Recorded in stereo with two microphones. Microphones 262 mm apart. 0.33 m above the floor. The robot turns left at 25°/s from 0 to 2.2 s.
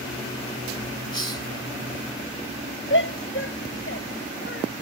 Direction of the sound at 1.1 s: 75° right (ahead or behind).